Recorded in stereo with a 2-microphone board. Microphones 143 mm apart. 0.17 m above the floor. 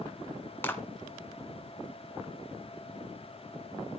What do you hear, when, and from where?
0.6 s a clap: 15° left (ahead or behind), 1.7 m